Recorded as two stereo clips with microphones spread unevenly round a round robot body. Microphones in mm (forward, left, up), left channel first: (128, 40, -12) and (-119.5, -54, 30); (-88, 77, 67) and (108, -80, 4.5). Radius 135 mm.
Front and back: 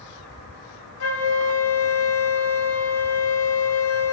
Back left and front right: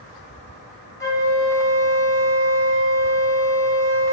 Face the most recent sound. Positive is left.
turn(degrees=60)